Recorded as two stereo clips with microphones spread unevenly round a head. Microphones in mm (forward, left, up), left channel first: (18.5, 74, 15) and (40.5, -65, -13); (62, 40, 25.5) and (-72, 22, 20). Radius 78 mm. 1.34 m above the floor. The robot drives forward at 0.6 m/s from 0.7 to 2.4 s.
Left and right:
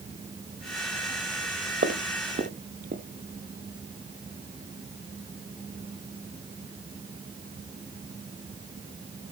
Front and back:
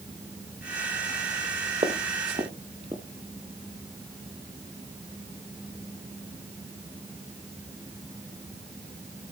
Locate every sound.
1.8 s footsteps: 120° right, 2 m; by 3.0 s 110° right, 2 m